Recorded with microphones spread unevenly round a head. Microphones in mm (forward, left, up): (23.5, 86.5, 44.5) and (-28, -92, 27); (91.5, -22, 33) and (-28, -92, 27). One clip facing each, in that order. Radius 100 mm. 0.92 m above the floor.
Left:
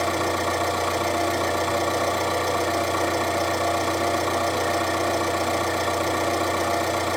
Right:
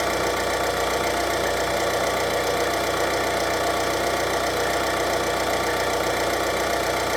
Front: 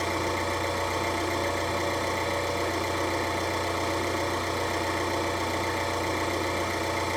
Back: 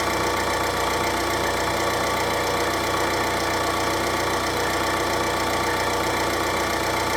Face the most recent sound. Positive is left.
turn(degrees=175)